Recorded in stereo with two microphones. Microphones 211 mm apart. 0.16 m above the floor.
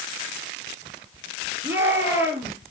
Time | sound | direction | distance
1.6 | a shout | 10° right (ahead or behind) | 3.5 m